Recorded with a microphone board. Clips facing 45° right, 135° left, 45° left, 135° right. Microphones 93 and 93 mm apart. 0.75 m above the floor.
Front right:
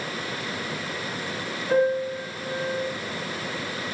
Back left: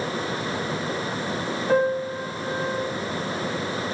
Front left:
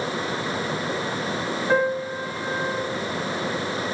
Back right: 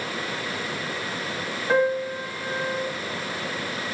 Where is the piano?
140° left, 1.3 m.